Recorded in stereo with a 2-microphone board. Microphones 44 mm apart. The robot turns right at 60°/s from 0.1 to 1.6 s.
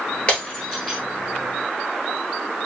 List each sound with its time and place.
0.3 s breaking glass: 30° left (ahead or behind), 1.3 m; by 1.0 s centre (ahead or behind), 1.3 m